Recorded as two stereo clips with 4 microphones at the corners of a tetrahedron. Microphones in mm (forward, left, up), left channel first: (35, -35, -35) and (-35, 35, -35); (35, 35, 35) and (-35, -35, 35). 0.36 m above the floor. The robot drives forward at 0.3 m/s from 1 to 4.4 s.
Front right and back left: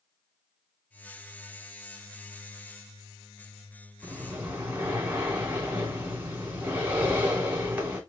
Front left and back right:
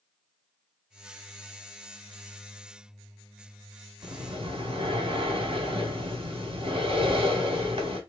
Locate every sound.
4.0 s breathing: 155° right, 2 m